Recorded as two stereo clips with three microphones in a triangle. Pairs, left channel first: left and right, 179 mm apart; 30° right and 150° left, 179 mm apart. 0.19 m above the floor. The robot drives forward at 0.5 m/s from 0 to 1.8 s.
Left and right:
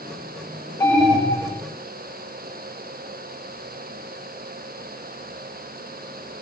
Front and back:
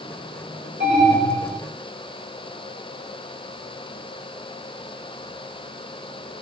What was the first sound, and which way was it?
An alarm, 165° left.